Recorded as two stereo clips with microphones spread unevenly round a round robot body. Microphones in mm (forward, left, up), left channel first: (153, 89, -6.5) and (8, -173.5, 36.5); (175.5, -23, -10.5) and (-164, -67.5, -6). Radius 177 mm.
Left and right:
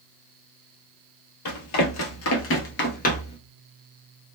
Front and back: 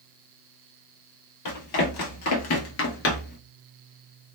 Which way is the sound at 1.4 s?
40° left.